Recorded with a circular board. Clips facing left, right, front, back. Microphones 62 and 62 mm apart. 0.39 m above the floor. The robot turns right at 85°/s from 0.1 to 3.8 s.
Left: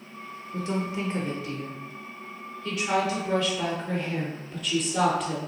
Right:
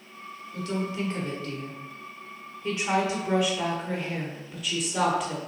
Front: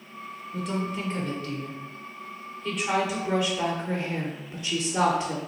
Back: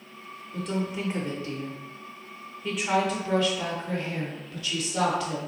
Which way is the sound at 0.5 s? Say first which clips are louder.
Left 1 dB, even; 75° left.